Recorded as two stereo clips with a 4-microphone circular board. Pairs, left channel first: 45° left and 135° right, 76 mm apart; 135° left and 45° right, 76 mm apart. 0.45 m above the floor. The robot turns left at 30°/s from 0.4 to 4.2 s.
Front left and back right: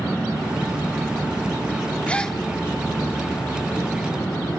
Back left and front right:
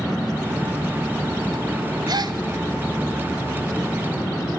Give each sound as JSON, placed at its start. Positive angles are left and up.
{"t": 2.1, "sound": "a gasp", "azimuth_deg": -30, "distance_m": 0.8}